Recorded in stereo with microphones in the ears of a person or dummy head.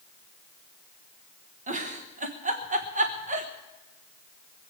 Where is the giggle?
40° right (ahead or behind), 1.1 m.